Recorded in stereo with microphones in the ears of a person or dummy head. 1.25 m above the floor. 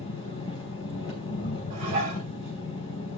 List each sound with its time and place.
0.0 s an engine running: 25° left (ahead or behind), 3.5 m
1.7 s dishes clattering: 45° right (ahead or behind), 5.5 m